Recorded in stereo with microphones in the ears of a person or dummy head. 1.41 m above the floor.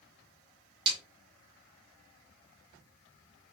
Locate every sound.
0.9 s a snare drum: 30° right (ahead or behind), 2 m